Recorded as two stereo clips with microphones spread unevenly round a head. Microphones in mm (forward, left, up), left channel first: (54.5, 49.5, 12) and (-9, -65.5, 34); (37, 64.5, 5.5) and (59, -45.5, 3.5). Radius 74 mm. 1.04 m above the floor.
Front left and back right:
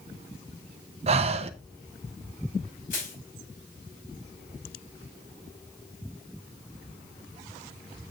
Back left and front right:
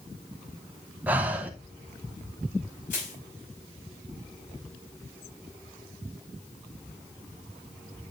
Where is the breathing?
150° right, 0.6 m.